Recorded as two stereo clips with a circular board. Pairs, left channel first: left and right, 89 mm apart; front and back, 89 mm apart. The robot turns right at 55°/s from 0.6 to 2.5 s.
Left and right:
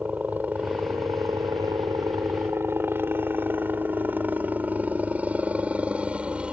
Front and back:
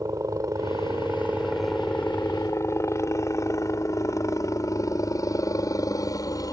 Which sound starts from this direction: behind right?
A helicopter, at 0.0 s.